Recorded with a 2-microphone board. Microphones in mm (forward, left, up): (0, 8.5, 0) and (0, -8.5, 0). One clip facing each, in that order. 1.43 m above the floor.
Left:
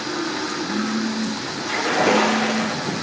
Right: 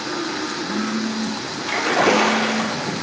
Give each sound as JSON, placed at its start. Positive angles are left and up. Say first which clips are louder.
{"t": 1.7, "sound": "a splash", "louder": "right 1 dB", "side_deg": -45, "distance_m": 1.8}